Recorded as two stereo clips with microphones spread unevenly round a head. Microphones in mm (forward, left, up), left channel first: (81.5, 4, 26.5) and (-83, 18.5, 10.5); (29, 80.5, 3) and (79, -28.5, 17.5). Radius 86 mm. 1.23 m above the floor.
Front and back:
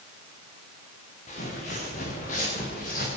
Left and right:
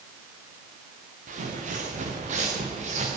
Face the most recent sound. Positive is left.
turn(degrees=-45)